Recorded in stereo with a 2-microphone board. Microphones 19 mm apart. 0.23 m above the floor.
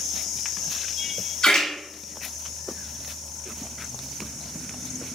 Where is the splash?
50° left (ahead or behind), 1.1 m.